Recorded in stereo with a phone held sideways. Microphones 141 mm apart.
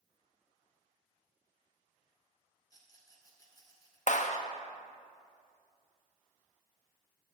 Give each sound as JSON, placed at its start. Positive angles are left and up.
{"t": 2.7, "sound": "a rattle", "side_deg": 25, "distance_m": 2.0}
{"t": 4.1, "sound": "a clap", "side_deg": 60, "distance_m": 0.7}